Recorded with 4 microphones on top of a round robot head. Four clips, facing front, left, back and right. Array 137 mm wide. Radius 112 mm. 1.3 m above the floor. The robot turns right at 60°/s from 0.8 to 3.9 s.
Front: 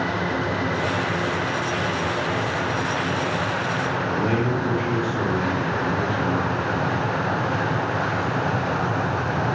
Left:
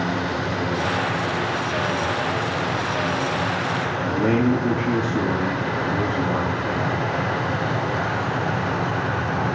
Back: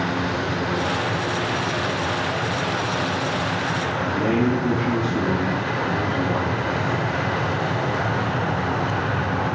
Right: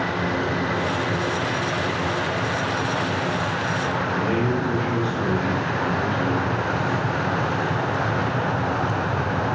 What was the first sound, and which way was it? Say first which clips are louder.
A man speaking: left 6 dB, back 4 dB; 115° left.